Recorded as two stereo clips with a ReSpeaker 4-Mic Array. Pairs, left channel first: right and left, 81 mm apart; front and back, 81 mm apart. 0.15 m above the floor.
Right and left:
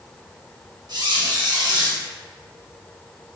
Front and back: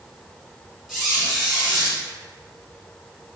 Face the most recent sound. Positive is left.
turn(degrees=90)